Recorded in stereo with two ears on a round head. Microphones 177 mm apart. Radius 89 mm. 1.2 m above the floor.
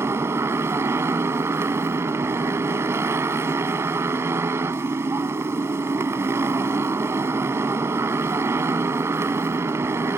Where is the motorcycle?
15° right (ahead or behind).